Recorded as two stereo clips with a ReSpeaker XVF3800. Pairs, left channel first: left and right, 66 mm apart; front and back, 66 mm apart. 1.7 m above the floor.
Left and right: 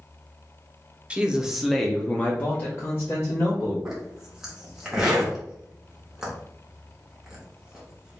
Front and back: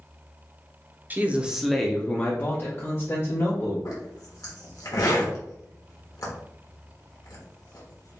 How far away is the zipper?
About 1.2 m.